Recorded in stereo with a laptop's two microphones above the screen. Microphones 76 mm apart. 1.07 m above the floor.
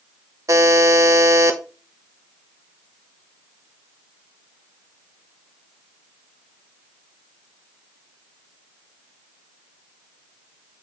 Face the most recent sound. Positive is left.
turn(degrees=-50)  # may be behind; listen again after turning